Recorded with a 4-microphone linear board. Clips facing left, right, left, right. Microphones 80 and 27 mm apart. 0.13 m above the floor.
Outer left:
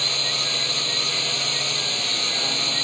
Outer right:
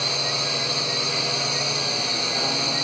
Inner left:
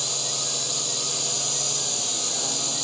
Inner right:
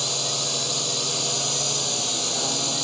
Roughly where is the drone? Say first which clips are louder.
Outer right 2 dB, inner right 3 dB; centre.